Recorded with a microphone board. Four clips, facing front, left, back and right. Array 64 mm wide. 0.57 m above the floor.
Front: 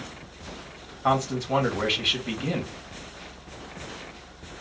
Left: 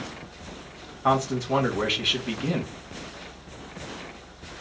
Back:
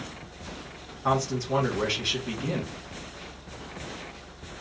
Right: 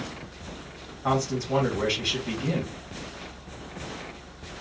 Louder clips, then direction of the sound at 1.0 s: Left 3 dB, front 2 dB; 35° left.